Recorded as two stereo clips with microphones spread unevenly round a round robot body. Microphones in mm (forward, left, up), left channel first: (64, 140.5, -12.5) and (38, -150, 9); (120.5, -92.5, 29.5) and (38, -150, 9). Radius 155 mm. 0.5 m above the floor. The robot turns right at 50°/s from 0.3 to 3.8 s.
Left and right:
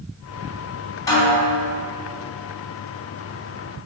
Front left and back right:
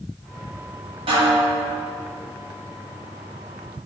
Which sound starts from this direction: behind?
A snare drum, at 1.1 s.